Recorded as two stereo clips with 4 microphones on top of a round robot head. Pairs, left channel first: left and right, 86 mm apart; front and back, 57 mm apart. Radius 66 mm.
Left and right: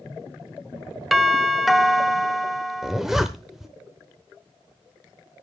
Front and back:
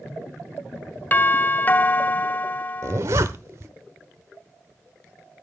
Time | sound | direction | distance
1.1 | a doorbell | straight ahead | 0.9 m
2.8 | a zipper | 175° right | 0.6 m